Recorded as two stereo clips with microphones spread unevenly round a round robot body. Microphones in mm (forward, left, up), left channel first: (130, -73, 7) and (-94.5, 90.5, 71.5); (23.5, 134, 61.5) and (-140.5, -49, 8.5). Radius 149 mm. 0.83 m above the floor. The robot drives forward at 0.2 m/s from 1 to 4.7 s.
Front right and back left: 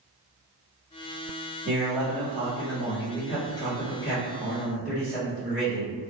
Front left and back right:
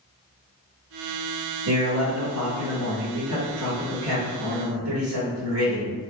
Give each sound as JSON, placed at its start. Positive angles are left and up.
{"t": 1.6, "sound": "a man speaking", "azimuth_deg": -125, "distance_m": 1.4}